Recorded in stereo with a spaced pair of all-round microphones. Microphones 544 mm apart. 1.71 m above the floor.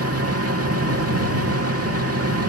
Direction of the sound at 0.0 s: 25° right (ahead or behind).